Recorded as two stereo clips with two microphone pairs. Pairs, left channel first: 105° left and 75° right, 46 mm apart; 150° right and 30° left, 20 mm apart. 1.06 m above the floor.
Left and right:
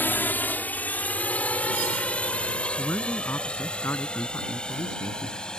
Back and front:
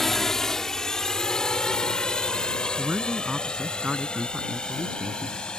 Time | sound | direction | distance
0.0 | a drone | 140° left | ?
2.8 | a man speaking | 80° left | ?